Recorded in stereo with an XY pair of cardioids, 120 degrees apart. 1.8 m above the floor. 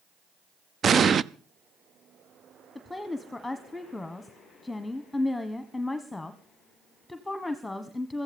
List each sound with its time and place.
0.8 s an explosion: 40° right, 0.5 m
2.8 s a woman speaking: 10° left, 1.4 m